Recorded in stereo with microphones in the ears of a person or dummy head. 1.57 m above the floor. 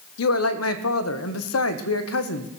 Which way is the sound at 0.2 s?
80° left.